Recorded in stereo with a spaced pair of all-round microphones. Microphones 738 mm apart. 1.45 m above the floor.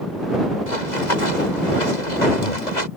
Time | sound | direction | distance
0.7 | running footsteps | 80° left | ?